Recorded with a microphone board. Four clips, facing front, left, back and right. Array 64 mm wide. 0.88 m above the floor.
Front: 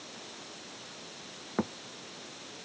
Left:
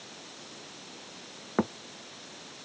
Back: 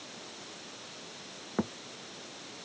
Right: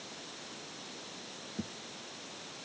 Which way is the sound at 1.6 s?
85° left.